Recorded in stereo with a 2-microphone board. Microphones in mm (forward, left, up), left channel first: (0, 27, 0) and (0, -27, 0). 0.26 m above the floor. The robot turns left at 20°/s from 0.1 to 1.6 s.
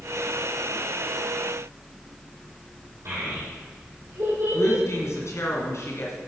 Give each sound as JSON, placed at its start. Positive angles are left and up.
{"t": 3.0, "sound": "a child speaking", "side_deg": -55, "distance_m": 5.5}
{"t": 4.5, "sound": "a woman speaking", "side_deg": 60, "distance_m": 2.5}